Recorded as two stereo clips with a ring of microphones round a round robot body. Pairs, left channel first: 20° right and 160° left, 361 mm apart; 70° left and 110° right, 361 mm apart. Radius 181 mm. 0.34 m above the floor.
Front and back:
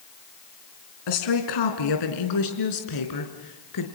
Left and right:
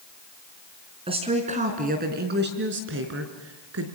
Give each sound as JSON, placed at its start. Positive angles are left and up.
{"t": 1.1, "sound": "a woman speaking", "azimuth_deg": -35, "distance_m": 3.5}